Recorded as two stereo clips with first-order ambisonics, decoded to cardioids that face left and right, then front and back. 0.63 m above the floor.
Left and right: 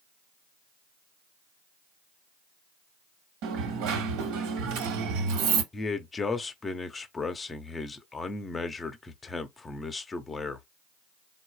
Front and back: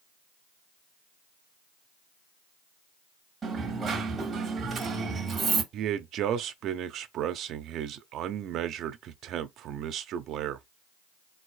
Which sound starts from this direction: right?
A dropped coin, at 3.4 s.